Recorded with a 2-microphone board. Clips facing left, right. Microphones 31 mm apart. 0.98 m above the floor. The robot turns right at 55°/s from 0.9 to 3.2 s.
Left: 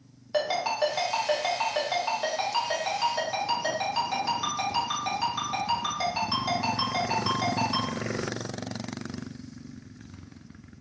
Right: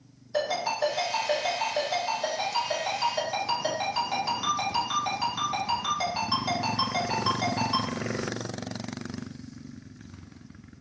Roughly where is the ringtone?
Left.